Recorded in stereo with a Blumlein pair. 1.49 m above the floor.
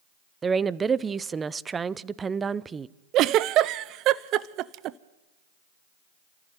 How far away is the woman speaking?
About 0.6 m.